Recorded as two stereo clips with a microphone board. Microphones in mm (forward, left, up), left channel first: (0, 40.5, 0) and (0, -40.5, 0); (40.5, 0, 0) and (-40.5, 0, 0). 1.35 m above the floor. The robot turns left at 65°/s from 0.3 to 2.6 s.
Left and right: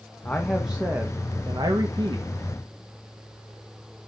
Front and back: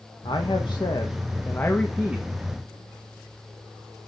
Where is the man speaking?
20° left, 1.6 m; by 2.2 s 105° right, 1.6 m.